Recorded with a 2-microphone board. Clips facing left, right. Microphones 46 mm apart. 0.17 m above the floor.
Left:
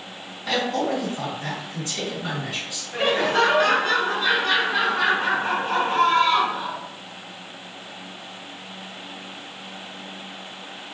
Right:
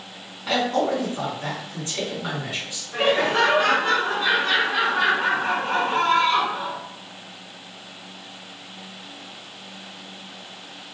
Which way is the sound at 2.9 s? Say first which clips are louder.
Right 1 dB; 30° right (ahead or behind).